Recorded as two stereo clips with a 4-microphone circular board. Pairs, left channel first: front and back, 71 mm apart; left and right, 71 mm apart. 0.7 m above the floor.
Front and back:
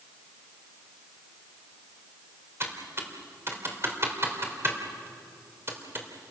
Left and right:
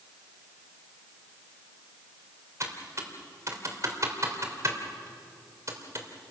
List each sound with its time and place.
2.6 s typing on a keyboard: 130° right, 3 m